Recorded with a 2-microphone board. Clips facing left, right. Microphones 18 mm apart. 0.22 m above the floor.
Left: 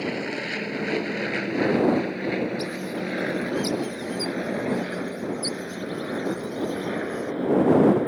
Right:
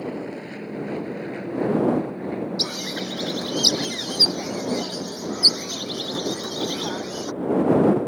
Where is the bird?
70° right (ahead or behind).